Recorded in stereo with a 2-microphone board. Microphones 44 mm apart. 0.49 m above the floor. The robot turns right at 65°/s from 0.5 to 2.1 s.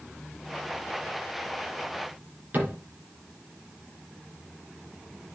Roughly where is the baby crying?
No baby crying in this recording.